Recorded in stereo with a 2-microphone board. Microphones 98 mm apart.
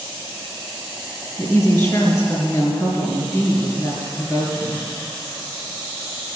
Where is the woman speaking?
35° left (ahead or behind), 3.5 m.